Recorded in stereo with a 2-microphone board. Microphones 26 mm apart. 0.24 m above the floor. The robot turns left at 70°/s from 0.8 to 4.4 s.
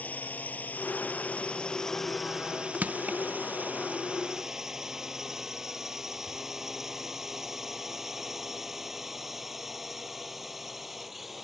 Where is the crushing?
70° right (ahead or behind); by 3.2 s 85° right.